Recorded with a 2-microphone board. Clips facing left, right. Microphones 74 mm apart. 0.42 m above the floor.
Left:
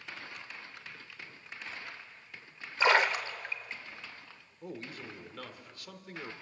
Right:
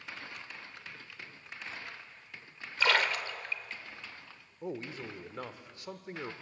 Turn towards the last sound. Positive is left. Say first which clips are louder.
# right 4 dB
turn(degrees=-25)  # may be behind; listen again after turning